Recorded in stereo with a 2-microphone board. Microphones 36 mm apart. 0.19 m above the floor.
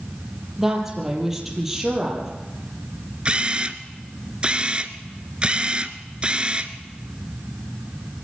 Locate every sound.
0.6 s a woman speaking: 10° right (ahead or behind), 5 m
3.2 s a camera shutter: 30° right (ahead or behind), 1.1 m